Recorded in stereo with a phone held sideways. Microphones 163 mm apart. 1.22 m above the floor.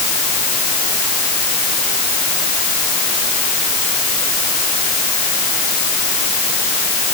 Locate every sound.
Only background noise.